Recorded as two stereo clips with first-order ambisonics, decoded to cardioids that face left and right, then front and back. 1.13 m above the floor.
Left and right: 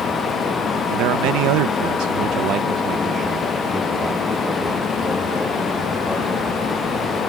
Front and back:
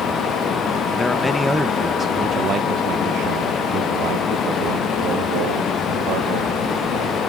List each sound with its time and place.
0.9 s a man speaking: 75° right; by 7.2 s 170° left